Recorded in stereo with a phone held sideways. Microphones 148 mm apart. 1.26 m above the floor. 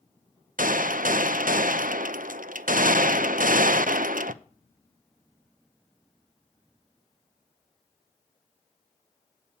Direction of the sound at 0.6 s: 70° right (ahead or behind).